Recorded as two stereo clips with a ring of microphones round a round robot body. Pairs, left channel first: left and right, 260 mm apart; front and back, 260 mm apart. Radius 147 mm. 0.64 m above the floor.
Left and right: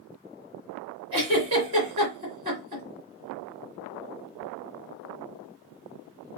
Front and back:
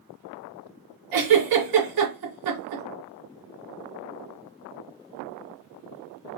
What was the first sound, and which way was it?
A giggle, 165° right.